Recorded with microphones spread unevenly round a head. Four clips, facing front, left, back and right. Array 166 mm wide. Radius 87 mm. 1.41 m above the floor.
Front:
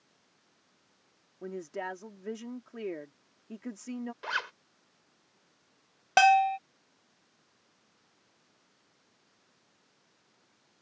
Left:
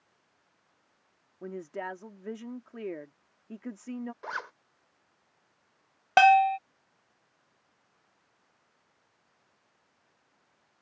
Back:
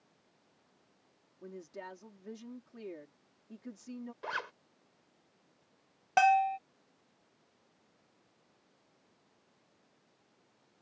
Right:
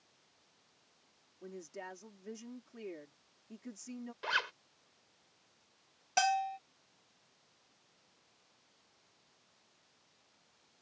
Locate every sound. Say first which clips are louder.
1.4 s a woman speaking: left 9 dB, front 8 dB; 40° left
4.2 s a zipper: right 1 dB, front 2 dB; 55° left
6.2 s a bell: left 13 dB, front 4 dB; 50° left